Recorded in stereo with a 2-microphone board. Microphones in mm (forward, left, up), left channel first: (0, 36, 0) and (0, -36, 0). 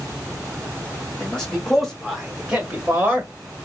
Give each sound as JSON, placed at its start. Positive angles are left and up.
{"t": 1.2, "sound": "a man speaking", "side_deg": 10, "distance_m": 2.5}